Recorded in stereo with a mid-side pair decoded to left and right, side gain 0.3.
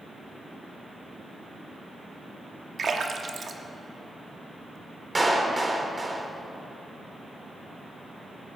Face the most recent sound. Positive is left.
turn(degrees=-30)